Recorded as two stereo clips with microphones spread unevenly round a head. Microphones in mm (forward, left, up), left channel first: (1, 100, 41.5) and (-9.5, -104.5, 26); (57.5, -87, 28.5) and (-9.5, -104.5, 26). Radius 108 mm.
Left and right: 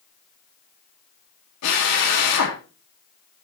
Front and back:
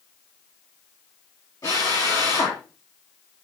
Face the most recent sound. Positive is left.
turn(degrees=85)